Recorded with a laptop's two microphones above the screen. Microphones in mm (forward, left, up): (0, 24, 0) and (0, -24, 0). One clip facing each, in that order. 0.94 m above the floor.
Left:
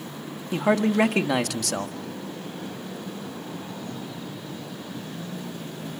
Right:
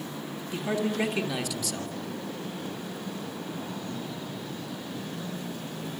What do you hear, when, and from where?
0.5 s a man speaking: 65° left (ahead or behind), 1.5 m